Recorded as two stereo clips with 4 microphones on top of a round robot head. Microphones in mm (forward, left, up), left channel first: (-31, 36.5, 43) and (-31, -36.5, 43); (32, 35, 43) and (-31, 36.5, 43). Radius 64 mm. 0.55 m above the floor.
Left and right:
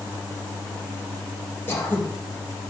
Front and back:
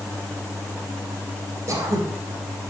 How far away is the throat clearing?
About 3 m.